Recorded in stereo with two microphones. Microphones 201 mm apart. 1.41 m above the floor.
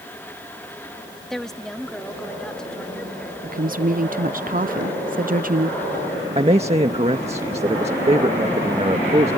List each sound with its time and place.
1.3 s a woman speaking: centre (ahead or behind); by 3.3 s 5° left (ahead or behind)
3.4 s a woman speaking: 45° right (ahead or behind)
6.3 s a man speaking: 30° right (ahead or behind)